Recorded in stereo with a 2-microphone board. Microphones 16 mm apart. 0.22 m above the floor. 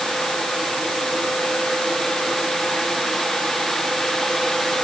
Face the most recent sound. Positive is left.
No sound to turn to.